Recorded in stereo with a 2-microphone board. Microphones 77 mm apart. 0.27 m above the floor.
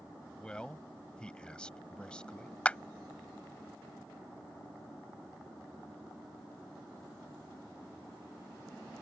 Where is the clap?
15° left (ahead or behind).